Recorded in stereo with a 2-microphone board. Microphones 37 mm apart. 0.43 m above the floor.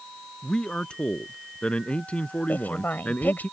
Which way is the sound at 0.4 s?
25° left (ahead or behind).